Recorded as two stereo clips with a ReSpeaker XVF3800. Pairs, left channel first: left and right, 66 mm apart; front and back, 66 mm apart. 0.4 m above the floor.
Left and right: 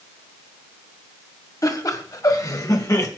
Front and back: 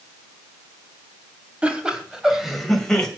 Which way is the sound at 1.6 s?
110° left.